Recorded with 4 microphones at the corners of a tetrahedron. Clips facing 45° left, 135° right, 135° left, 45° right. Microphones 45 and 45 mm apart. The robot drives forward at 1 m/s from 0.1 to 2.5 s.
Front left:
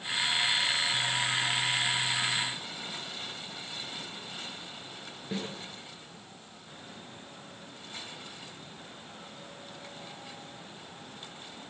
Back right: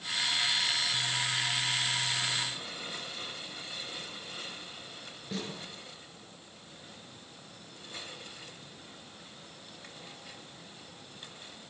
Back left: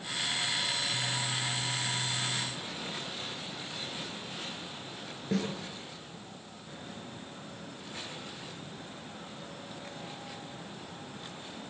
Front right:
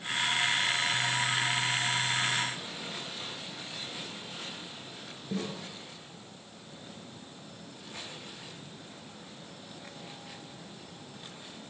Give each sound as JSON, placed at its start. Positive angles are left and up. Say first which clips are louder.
{"t": 5.3, "sound": "a snare drum", "louder": "front left 2 dB, back left 3 dB", "azimuth_deg": 115, "distance_m": 10.0}